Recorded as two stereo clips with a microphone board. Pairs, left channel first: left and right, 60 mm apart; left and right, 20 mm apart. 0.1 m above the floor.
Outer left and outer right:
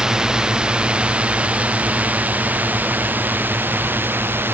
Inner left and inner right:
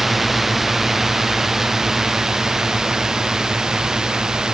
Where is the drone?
15° right (ahead or behind); by 4.5 s 40° right (ahead or behind).